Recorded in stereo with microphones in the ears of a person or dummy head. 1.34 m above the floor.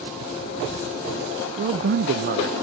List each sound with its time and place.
1.6 s a man speaking: 55° right (ahead or behind), 0.5 m